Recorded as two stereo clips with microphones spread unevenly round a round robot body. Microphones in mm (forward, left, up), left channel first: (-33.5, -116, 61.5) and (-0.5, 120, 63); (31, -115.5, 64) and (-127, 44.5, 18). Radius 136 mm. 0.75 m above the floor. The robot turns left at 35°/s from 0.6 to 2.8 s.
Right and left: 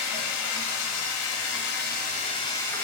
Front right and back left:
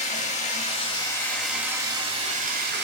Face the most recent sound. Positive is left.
turn(degrees=175)